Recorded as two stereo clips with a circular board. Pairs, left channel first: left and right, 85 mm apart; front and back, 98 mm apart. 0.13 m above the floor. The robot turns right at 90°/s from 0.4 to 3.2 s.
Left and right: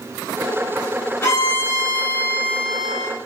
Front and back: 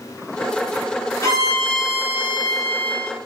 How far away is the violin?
About 0.9 m.